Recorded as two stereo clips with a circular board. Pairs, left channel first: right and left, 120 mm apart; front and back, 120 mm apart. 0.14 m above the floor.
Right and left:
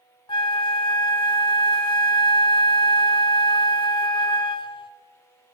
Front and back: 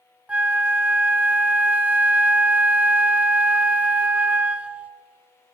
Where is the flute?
105° right, 0.6 m.